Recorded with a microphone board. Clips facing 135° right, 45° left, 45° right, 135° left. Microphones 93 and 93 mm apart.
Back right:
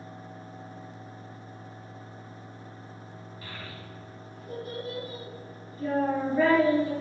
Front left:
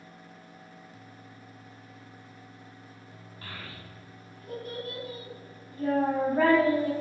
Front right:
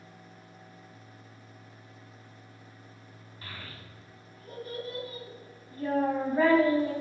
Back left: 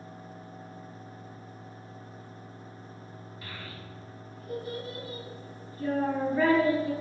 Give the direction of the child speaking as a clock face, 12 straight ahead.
12 o'clock.